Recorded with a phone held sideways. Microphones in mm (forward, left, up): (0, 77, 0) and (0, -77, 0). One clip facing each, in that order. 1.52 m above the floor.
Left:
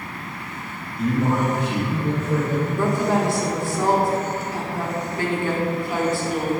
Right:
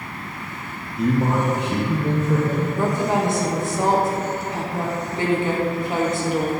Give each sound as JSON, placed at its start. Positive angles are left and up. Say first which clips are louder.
{"t": 1.0, "sound": "a man speaking", "louder": "right 1 dB", "side_deg": -75, "distance_m": 1.2}
{"t": 2.8, "sound": "a woman speaking", "louder": "left 1 dB", "side_deg": -20, "distance_m": 0.9}